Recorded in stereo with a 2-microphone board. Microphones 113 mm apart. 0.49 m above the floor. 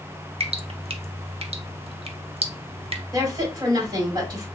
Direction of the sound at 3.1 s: 35° right (ahead or behind).